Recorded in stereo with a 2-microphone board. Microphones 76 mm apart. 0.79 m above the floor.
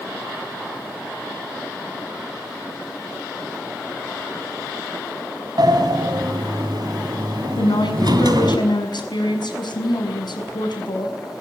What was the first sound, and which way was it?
A sliding door, 65° right (ahead or behind).